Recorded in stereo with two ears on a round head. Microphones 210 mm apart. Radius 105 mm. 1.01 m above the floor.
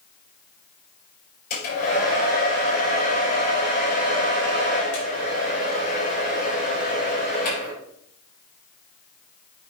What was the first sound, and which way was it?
A hair dryer, 40° left (ahead or behind).